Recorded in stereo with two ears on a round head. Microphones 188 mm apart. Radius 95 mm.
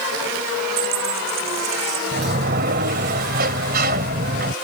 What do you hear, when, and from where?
0.8 s a dropped coin: 45° right (ahead or behind)
2.1 s a sliding door: 45° right (ahead or behind)